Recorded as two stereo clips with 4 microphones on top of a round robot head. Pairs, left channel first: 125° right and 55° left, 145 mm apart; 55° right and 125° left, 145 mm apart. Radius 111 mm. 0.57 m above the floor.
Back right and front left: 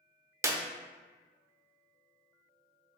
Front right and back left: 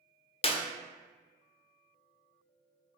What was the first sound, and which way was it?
A clap, 15° right.